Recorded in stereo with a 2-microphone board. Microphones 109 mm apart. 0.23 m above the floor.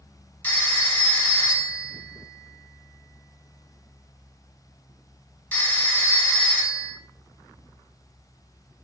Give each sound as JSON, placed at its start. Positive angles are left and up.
{"t": 0.4, "sound": "a phone ringing", "side_deg": 15, "distance_m": 1.6}